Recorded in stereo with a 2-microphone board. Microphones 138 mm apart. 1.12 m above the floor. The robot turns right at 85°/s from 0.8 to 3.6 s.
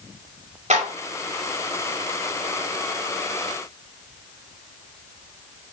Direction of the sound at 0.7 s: 55° right (ahead or behind).